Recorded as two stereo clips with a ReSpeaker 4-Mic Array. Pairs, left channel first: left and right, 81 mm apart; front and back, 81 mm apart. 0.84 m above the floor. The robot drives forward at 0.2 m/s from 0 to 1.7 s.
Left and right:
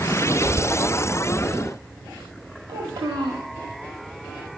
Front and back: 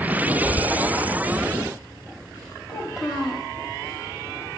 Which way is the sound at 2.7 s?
95° right.